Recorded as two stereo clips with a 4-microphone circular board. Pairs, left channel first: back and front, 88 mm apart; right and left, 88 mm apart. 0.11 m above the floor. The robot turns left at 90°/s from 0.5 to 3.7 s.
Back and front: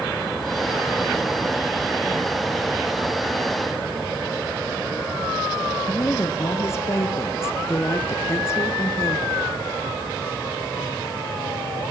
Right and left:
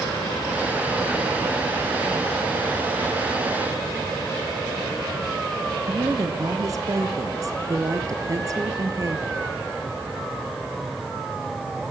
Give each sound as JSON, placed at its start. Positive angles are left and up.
{"t": 5.9, "sound": "a woman speaking", "azimuth_deg": 130, "distance_m": 2.0}